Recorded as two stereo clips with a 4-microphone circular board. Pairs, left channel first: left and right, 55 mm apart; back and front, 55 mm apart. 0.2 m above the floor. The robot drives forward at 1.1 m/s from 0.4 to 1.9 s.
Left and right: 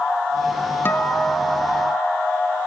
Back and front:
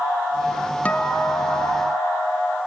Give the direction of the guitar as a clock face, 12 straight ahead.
8 o'clock.